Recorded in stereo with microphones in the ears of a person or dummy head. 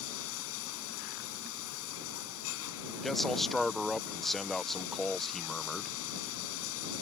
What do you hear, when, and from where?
0.0 s running water: 80° left
3.0 s a man speaking: centre (ahead or behind)